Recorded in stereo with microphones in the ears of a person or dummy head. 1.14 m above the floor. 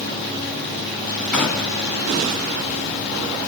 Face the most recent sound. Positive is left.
turn(degrees=5)  # may be behind; listen again after turning